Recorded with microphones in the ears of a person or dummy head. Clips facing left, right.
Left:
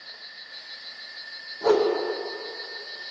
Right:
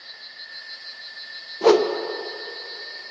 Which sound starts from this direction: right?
A whoosh, at 1.6 s.